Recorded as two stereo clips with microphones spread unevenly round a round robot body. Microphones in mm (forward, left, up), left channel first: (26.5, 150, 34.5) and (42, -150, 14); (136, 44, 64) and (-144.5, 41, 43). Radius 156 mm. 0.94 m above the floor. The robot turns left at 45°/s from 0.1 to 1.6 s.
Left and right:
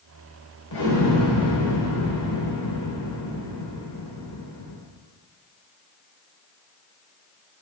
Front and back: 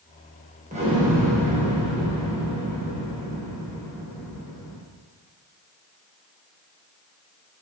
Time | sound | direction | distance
0.7 | an explosion | 115° left | 4 m